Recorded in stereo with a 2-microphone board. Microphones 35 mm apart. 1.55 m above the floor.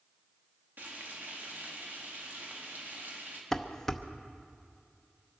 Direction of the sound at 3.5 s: 10° left (ahead or behind).